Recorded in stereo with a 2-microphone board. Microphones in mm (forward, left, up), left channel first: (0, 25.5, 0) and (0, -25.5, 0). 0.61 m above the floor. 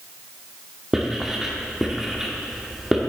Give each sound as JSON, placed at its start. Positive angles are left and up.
{"t": 0.9, "sound": "writing", "side_deg": -10, "distance_m": 1.4}